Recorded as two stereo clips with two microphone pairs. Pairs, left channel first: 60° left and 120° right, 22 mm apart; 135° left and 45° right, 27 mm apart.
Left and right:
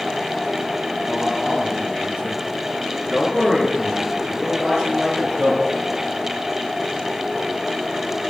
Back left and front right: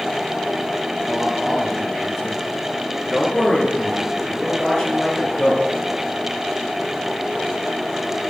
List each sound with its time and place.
1.1 s a man speaking: 125° right, 6.5 m; by 5.7 s 165° right, 5.5 m